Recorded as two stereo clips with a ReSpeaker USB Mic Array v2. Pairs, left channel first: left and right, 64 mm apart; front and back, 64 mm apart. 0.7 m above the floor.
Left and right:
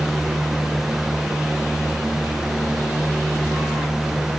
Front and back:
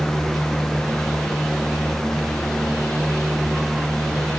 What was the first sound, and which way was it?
Only background noise.